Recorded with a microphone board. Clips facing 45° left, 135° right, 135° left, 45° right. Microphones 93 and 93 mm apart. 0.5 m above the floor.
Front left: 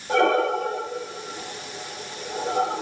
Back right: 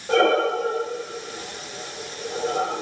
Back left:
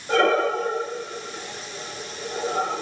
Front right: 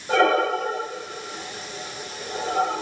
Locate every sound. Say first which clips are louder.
0.1 s breathing: back right 1 dB, front right 1 dB; 130° right, 3 m